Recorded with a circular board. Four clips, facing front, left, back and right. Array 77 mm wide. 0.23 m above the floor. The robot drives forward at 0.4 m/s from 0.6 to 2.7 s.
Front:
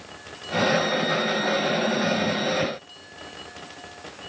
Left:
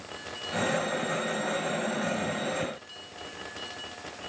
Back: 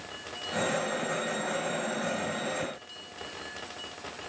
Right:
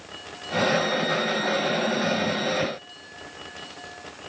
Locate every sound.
Only background noise.